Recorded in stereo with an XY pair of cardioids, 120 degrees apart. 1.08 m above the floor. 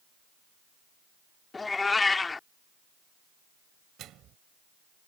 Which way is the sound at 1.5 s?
25° left.